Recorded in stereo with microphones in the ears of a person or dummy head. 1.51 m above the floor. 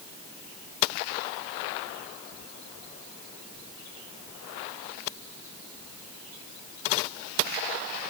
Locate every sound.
Only background noise.